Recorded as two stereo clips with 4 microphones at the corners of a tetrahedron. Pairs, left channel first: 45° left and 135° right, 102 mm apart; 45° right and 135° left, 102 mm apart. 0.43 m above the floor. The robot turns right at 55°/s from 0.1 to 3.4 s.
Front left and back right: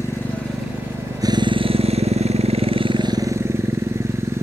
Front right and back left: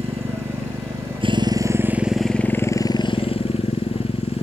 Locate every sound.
0.0 s a motorcycle: 110° left; by 4.4 s 70° right